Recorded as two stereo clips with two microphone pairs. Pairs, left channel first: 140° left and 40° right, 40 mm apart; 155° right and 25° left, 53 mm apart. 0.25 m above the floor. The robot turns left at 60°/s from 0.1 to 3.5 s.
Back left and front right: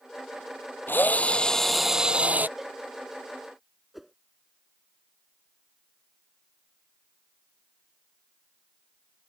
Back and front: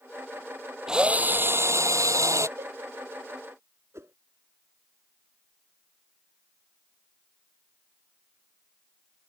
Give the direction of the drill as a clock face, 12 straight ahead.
9 o'clock.